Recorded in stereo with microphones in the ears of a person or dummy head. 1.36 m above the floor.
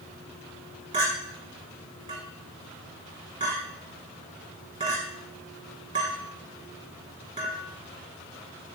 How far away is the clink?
About 1.0 m.